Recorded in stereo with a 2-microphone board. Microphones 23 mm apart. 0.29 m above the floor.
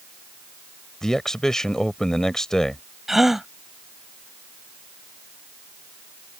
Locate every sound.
1.0 s a man speaking: 25° left (ahead or behind)
3.1 s a gasp: 15° right (ahead or behind)